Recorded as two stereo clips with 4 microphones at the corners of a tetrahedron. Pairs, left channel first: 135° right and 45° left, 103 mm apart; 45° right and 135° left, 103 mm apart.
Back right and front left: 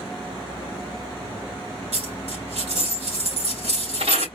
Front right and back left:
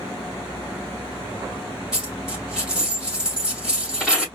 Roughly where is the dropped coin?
Ahead left.